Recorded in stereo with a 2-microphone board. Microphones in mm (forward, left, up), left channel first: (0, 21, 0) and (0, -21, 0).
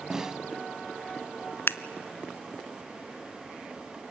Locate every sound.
0.1 s a snare drum: 15° right (ahead or behind), 0.6 m
1.7 s scissors: 70° left (ahead or behind), 0.6 m